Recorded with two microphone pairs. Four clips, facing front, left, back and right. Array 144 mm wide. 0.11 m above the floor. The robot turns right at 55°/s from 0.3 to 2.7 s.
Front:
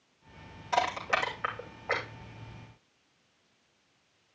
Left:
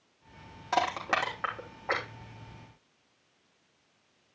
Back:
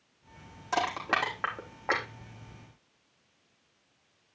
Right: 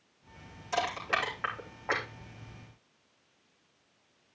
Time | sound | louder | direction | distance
0.7 | crushing | left 3 dB, front 1 dB | 115° left | 5.5 m